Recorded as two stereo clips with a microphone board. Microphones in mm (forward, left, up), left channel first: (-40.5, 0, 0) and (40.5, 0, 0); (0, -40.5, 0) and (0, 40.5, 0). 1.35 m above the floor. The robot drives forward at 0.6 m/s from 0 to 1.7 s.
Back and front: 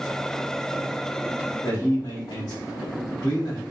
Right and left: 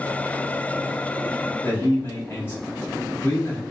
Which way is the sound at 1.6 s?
150° right.